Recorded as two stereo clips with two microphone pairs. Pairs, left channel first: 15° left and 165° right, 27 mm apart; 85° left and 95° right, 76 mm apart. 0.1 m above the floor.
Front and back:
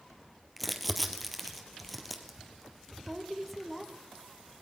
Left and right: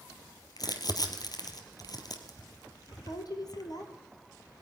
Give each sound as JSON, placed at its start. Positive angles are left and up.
{"t": 0.6, "sound": "crumpling", "azimuth_deg": 105, "distance_m": 2.0}